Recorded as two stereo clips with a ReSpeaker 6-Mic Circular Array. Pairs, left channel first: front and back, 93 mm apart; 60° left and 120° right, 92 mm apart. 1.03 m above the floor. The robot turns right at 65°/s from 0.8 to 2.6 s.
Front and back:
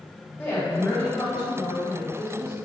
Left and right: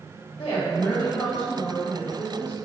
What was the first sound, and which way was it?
A woman speaking, 70° left.